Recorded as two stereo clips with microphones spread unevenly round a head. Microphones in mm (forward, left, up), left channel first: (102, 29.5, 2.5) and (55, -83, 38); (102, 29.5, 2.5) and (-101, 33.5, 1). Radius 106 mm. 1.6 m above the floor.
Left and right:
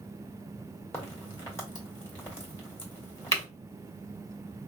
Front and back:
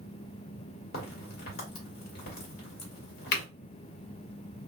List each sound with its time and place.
0.9 s a crack: 10° right, 1.6 m